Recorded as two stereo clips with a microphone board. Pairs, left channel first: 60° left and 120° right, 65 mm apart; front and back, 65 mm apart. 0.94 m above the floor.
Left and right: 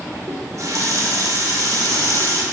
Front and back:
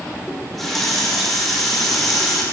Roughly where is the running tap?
Right.